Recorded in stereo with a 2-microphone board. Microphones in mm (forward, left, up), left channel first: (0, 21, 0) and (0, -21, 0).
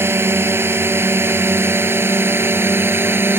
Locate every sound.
0.0 s a drone: 65° right (ahead or behind); by 3.4 s 60° right (ahead or behind)